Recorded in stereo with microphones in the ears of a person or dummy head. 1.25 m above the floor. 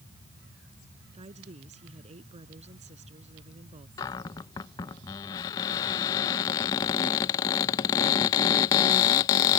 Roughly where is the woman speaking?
Right.